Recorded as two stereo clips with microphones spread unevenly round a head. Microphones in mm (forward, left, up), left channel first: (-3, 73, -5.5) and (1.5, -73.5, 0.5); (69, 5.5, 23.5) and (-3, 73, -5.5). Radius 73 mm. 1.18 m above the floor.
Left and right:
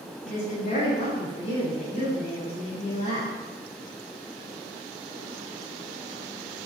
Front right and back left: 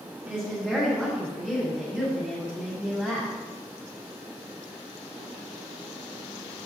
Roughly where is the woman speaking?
Ahead left.